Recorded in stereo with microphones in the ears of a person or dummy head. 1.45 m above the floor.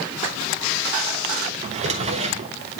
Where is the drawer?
35° right (ahead or behind), 1.1 m.